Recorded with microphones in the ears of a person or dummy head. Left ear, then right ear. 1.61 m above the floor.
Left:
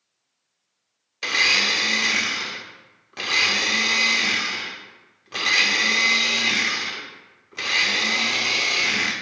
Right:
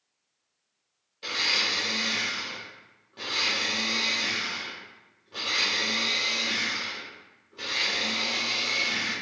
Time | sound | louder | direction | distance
1.2 | a blender | left 7 dB | 60° left (ahead or behind) | 0.7 m